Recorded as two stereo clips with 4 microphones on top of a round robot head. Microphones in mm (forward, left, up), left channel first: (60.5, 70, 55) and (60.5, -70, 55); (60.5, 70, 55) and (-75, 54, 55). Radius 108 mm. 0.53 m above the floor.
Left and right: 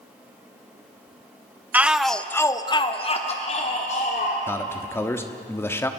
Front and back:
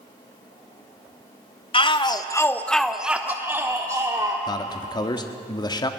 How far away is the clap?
No clap in this recording.